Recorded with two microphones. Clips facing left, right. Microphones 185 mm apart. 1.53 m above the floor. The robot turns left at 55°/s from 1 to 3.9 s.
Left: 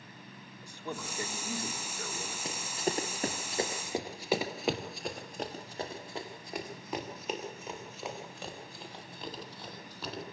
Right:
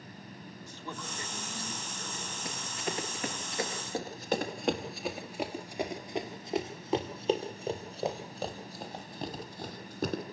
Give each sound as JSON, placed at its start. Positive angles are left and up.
{"t": 0.6, "sound": "a man speaking", "azimuth_deg": 170, "distance_m": 4.0}
{"t": 2.5, "sound": "running footsteps", "side_deg": 25, "distance_m": 1.9}